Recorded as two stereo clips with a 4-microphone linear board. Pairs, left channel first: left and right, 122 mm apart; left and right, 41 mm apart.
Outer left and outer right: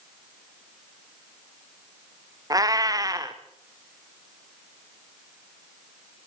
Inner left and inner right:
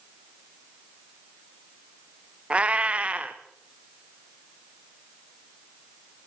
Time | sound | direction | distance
2.5 | a cat meowing | 30° right (ahead or behind) | 2.5 m